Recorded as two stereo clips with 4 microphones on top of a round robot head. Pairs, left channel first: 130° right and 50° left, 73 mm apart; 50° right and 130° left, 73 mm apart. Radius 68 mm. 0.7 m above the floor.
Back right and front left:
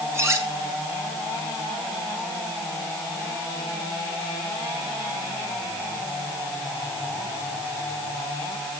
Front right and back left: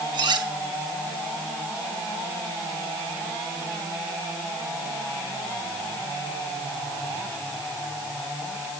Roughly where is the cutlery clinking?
Left.